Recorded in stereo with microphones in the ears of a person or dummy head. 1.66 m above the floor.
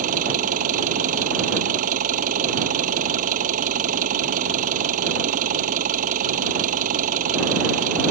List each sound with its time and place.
0.0 s an engine running: 45° right (ahead or behind)